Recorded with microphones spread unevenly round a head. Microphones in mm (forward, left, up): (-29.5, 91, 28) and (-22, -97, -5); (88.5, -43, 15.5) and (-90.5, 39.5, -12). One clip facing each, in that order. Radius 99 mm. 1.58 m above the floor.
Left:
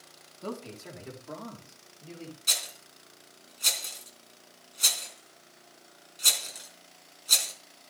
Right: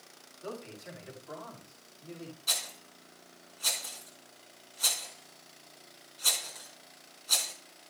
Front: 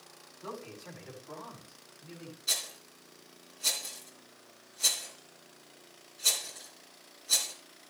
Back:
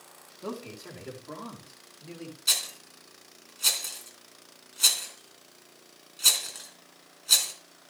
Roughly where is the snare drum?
I don't hear a snare drum.